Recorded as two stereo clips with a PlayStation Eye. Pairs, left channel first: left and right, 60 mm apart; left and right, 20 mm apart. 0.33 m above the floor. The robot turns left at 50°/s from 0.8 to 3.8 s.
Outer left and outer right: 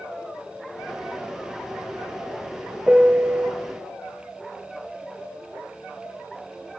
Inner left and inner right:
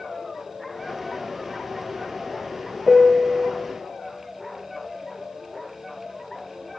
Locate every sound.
2.9 s a piano: 30° right, 0.8 m; by 3.5 s 65° right, 0.8 m